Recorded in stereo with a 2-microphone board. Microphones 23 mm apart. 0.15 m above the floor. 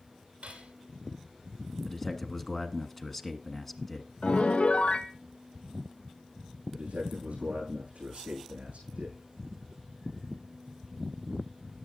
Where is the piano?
70° left (ahead or behind), 0.9 m.